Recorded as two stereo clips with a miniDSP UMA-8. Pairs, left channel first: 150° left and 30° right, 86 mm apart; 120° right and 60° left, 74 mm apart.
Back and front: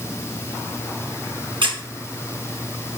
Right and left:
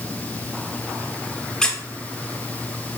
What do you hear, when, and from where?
1.6 s a squeak: 35° right, 0.5 m